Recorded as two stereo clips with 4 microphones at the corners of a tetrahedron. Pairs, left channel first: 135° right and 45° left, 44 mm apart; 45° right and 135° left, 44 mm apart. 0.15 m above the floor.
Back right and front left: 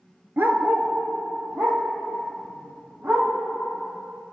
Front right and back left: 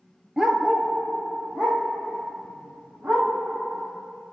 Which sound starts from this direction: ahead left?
A dog barking, at 0.4 s.